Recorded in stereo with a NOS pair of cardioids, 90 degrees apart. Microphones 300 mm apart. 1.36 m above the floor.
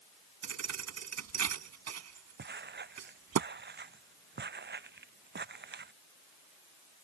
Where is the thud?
60° right.